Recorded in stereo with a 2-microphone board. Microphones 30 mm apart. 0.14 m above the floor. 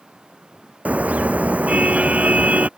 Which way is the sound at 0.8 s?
50° right (ahead or behind).